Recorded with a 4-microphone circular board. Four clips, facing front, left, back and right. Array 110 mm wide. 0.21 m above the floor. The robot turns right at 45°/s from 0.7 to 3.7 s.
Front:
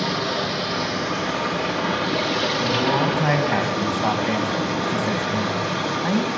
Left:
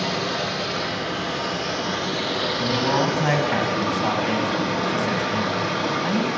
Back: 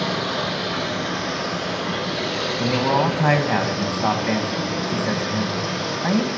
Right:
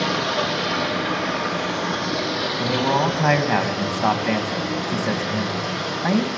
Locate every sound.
0.0 s running water: 85° right, 5 m; by 6.4 s 50° left, 5 m
2.6 s a man speaking: 155° right, 1.4 m; by 6.3 s 105° right, 1.4 m